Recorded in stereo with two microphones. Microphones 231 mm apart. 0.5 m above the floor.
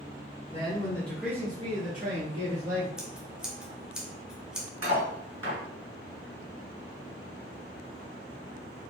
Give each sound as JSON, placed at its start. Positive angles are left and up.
{"t": 0.5, "sound": "a man speaking", "side_deg": 25, "distance_m": 1.2}
{"t": 3.0, "sound": "scissors", "side_deg": -5, "distance_m": 0.7}
{"t": 4.8, "sound": "cutlery clinking", "side_deg": 65, "distance_m": 1.7}